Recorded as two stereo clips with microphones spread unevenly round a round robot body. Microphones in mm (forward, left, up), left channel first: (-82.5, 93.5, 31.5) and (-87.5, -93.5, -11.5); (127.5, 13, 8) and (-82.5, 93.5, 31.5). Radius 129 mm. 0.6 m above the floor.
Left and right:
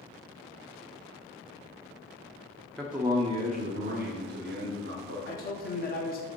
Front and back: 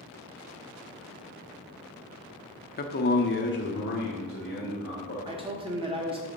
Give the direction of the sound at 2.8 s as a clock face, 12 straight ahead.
12 o'clock.